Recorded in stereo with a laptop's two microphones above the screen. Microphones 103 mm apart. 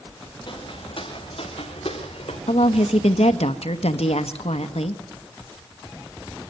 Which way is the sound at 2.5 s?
80° left.